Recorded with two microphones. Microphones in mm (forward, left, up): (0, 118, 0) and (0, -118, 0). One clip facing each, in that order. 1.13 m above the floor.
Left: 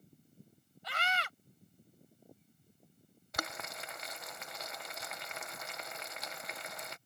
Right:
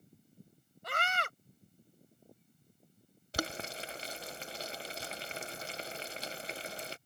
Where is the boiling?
35° right (ahead or behind).